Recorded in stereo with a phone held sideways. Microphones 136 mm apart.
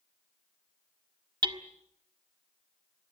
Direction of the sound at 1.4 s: 35° right (ahead or behind).